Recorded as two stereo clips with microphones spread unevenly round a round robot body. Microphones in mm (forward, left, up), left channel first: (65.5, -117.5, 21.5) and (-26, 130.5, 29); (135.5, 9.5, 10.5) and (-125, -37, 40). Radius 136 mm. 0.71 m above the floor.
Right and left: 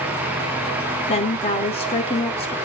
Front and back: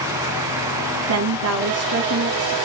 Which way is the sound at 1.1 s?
135° right.